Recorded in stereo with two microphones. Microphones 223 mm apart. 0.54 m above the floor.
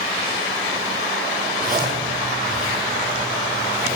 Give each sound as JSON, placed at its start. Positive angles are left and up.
{"t": 1.6, "sound": "a zipper", "side_deg": -40, "distance_m": 4.0}